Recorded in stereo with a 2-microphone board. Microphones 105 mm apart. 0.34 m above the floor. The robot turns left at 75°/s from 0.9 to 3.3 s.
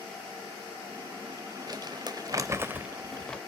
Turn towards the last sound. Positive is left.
turn(degrees=10)  # may be behind; listen again after turning